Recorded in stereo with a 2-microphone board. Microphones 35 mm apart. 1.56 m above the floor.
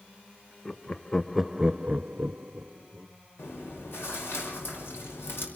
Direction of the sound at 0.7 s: 25° left (ahead or behind).